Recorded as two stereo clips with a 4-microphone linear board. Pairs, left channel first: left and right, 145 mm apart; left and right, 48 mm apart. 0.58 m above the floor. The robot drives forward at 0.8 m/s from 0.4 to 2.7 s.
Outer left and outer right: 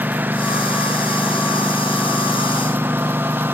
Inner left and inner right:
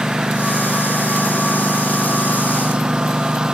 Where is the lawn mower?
10° right (ahead or behind); by 3.5 s 15° right (ahead or behind).